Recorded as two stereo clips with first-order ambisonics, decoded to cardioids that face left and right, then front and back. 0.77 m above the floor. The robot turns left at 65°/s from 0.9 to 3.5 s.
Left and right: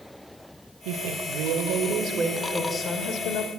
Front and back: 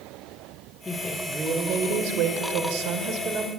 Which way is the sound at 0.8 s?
75° right.